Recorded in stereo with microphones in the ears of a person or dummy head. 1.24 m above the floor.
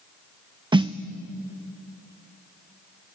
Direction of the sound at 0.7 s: 20° right (ahead or behind).